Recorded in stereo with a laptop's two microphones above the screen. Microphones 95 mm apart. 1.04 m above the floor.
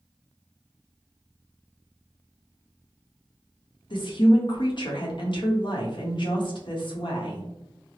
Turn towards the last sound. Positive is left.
turn(degrees=55)  # may be behind; listen again after turning